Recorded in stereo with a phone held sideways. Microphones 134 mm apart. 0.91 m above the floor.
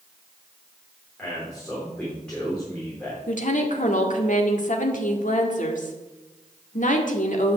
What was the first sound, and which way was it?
A man speaking, 5° left (ahead or behind).